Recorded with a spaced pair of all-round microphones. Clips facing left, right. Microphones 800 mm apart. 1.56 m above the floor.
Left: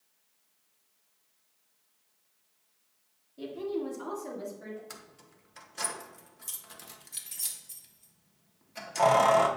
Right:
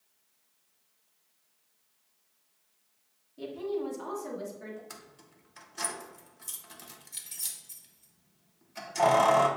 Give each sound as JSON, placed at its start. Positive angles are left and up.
{"t": 3.4, "sound": "a woman speaking", "side_deg": 0, "distance_m": 1.4}
{"t": 4.9, "sound": "keys jangling", "side_deg": 10, "distance_m": 0.5}